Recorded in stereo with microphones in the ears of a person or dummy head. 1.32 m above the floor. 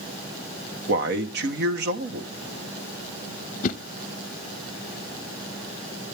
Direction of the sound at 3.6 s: 45° left (ahead or behind).